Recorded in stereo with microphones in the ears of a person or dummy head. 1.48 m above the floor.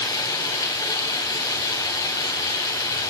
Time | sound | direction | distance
0.0 | running water | 20° left (ahead or behind) | 4 m